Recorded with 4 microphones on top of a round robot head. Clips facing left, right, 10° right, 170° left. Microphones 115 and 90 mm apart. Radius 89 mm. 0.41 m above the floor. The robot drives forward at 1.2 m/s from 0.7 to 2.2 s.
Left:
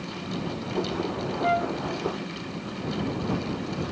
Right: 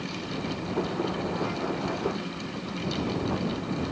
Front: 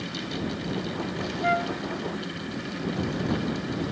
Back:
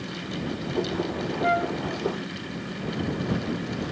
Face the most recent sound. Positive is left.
turn(degrees=95)